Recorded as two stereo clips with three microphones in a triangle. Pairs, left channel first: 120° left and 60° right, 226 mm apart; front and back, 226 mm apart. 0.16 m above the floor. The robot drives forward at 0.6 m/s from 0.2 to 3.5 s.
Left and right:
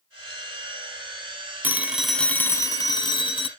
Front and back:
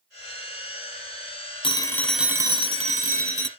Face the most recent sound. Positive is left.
turn(degrees=180)